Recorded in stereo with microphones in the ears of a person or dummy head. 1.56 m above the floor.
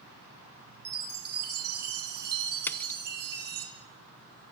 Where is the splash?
10° left (ahead or behind), 1.0 m.